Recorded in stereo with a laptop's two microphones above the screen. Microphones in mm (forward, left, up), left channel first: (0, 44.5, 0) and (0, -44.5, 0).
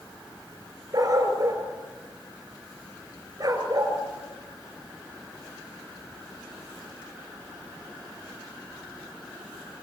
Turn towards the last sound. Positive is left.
turn(degrees=-40)  # may be behind; listen again after turning